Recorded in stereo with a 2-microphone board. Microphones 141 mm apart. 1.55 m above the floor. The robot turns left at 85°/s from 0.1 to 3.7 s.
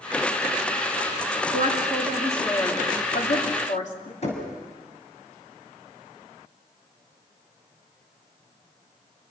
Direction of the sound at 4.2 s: 50° left (ahead or behind).